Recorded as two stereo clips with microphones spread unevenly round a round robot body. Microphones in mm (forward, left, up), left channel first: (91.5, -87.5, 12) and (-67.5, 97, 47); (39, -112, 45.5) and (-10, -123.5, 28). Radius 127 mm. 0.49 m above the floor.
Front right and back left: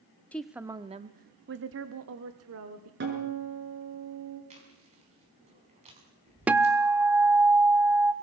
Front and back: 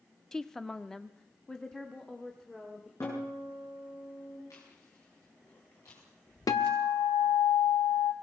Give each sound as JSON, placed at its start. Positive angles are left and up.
{"t": 0.3, "sound": "a woman speaking", "azimuth_deg": -105, "distance_m": 0.9}
{"t": 3.0, "sound": "a guitar", "azimuth_deg": 85, "distance_m": 7.0}
{"t": 4.5, "sound": "chewing", "azimuth_deg": 65, "distance_m": 5.5}
{"t": 6.5, "sound": "a guitar", "azimuth_deg": 45, "distance_m": 0.7}